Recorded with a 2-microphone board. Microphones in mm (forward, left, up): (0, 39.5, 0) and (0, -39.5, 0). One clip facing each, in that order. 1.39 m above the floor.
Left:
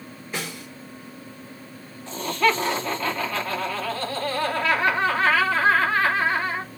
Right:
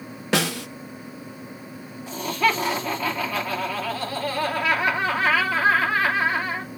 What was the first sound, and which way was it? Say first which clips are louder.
A snare drum: right 10 dB; 80° right.